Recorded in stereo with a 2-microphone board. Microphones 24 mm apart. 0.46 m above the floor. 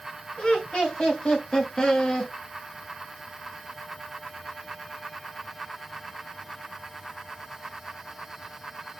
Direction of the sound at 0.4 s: 40° left (ahead or behind).